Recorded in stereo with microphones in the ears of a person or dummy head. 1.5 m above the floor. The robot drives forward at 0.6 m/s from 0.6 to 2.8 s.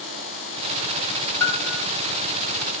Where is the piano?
20° left (ahead or behind), 2.5 m.